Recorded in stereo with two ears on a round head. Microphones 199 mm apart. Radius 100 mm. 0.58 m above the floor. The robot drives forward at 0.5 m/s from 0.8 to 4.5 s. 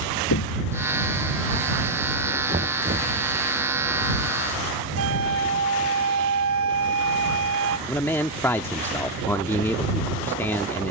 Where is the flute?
70° right (ahead or behind).